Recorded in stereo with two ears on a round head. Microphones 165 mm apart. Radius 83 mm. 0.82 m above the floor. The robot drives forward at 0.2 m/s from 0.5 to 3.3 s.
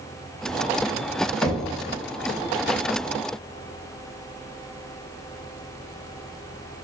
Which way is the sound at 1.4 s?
10° left (ahead or behind).